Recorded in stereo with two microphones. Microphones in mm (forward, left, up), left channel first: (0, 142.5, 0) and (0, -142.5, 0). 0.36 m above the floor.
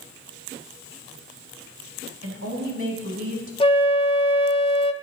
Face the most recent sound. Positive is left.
turn(degrees=20)  # may be behind; listen again after turning